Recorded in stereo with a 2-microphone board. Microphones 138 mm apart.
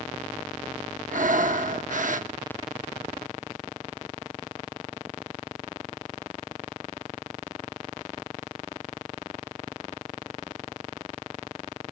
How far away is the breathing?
About 0.7 m.